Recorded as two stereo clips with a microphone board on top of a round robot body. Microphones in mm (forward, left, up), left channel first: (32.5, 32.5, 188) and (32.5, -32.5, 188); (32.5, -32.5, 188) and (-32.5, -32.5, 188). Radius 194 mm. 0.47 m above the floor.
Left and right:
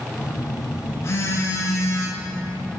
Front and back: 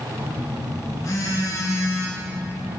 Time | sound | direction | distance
0.2 | a phone buzzing | 40° left | 1.4 m